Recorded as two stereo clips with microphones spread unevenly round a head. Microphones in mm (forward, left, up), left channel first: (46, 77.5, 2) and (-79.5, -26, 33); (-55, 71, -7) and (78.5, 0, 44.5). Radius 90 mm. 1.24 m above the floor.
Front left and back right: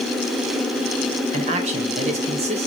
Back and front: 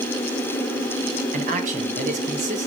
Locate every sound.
1.3 s a man speaking: 80° right, 1.6 m